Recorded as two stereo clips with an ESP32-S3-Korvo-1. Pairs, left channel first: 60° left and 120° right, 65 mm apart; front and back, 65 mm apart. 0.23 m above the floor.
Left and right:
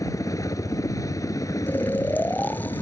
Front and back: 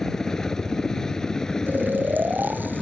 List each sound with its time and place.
0.0 s a helicopter: 80° left
1.7 s snoring: 120° left